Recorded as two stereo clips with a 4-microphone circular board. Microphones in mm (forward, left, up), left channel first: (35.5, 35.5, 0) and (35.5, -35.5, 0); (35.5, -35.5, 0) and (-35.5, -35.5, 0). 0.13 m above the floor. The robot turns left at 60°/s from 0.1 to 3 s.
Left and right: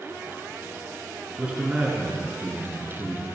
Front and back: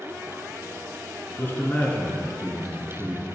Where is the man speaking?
15° right, 1.3 m; by 3.3 s 115° right, 1.3 m.